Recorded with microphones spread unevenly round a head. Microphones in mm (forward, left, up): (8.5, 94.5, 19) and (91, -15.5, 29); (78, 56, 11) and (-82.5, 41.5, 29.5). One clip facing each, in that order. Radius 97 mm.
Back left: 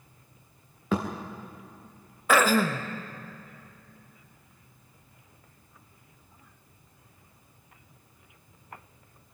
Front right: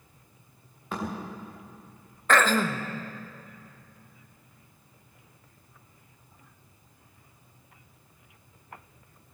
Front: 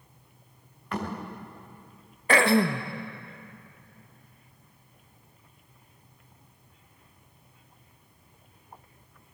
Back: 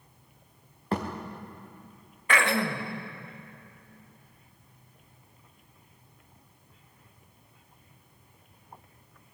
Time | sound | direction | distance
0.9 | a thud | 130° left | 4.5 m
2.3 | throat clearing | 50° left | 1.1 m